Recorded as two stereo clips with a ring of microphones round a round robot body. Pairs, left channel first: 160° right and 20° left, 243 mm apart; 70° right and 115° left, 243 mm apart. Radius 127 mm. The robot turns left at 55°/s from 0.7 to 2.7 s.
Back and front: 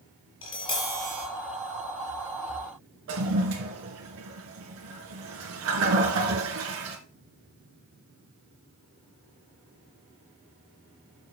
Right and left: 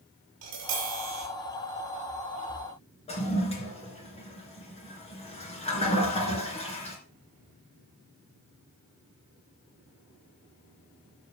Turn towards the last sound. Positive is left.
turn(degrees=-5)